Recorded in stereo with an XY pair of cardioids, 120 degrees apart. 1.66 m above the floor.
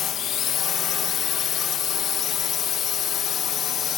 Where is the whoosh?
No whoosh in this recording.